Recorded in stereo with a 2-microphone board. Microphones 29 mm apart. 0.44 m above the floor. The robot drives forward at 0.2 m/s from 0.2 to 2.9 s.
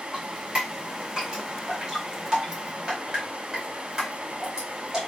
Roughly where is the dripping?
Right.